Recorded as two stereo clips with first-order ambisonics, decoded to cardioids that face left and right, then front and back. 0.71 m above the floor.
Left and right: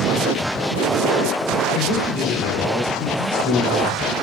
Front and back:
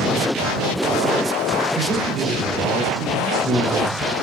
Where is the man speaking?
120° left, 3.5 m.